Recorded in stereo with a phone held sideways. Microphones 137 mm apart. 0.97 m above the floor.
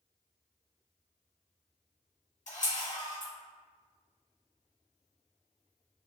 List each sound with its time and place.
2.5 s a camera shutter: 60° left (ahead or behind), 1.6 m